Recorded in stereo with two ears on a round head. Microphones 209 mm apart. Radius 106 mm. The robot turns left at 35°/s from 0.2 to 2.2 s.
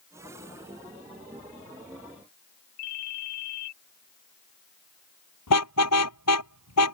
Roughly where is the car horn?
Left.